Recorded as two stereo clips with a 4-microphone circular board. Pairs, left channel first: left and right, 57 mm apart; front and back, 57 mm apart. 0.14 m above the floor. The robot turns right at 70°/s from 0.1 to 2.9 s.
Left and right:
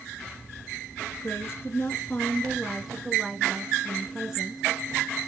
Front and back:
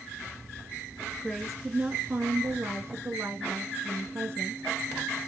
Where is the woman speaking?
70° left, 1.7 m; by 4.6 s 170° right, 1.7 m.